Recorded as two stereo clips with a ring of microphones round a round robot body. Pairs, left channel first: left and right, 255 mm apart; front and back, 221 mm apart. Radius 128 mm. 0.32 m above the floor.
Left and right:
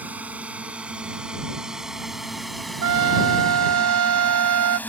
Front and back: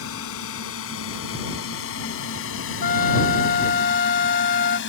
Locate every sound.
0.0 s a drone: 5° right; by 4.9 s 10° left
2.8 s a trumpet: 60° right